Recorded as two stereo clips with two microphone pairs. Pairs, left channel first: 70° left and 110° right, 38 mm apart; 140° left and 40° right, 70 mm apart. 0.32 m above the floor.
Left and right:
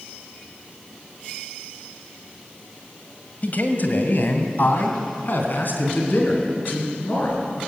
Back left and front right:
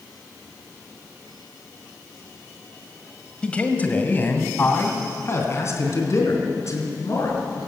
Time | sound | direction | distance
3.4 | a man speaking | 70° left | 2 m